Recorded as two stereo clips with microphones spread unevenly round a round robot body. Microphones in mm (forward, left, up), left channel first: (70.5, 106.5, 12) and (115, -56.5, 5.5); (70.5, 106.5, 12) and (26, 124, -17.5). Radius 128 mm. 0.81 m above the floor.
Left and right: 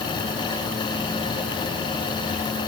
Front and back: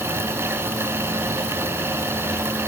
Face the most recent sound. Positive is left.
No sound to turn to.